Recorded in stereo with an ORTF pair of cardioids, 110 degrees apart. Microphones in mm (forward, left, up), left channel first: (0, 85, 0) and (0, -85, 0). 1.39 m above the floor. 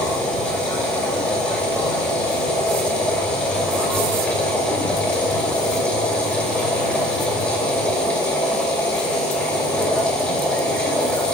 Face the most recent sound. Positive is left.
turn(degrees=5)